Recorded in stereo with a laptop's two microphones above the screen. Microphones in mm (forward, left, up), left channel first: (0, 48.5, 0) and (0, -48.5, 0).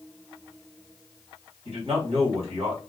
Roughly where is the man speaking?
Right.